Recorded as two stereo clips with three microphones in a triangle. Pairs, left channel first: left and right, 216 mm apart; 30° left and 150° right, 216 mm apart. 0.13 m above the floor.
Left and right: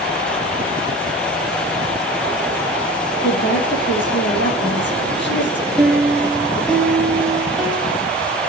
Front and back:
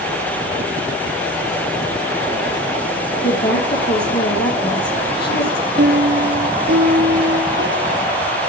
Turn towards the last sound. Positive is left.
turn(degrees=180)